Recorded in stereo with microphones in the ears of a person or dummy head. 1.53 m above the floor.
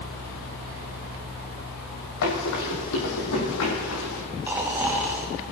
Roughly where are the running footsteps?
Left.